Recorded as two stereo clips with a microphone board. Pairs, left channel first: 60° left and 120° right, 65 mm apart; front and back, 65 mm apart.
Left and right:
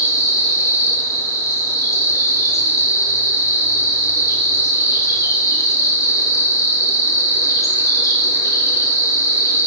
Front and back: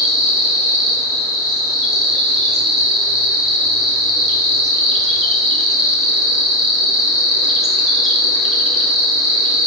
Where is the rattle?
No rattle in this recording.